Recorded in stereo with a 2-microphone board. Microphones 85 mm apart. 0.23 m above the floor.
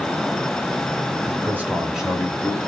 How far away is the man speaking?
About 1.2 m.